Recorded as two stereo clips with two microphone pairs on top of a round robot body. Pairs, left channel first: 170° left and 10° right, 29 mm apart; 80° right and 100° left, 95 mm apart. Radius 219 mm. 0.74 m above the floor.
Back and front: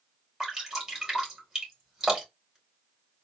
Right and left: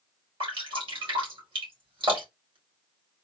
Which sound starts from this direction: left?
Dripping, at 0.4 s.